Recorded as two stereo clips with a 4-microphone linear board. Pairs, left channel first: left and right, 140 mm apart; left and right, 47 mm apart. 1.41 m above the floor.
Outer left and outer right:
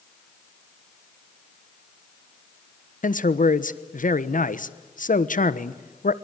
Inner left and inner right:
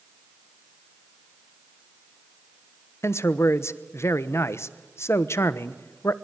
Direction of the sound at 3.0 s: 80° left.